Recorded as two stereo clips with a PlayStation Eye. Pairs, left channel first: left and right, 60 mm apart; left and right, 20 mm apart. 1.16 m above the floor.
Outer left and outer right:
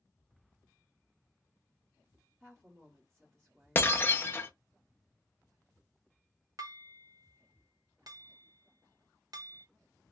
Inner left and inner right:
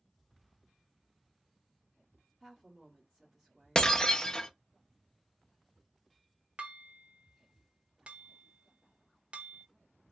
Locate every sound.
2.4 s a woman speaking: 25° right (ahead or behind), 1.2 m
3.8 s breaking glass: 35° left (ahead or behind), 0.6 m
6.6 s dishes clattering: 70° right (ahead or behind), 0.7 m